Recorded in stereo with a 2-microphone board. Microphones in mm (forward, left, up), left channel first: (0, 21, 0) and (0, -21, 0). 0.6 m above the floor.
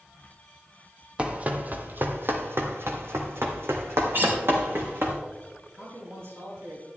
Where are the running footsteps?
25° right (ahead or behind), 1.2 m; by 5.1 s 65° right (ahead or behind), 2.5 m.